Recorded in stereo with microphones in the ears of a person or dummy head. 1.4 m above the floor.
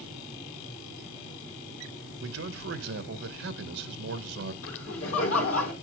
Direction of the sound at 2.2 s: 80° right.